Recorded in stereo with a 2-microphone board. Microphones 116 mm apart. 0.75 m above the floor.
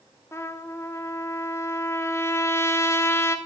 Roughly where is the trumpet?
Left.